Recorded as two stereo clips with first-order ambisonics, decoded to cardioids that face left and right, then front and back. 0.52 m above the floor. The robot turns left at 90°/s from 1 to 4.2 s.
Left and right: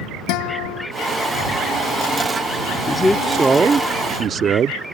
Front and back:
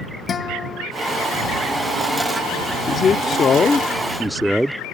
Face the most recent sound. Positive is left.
turn(degrees=-90)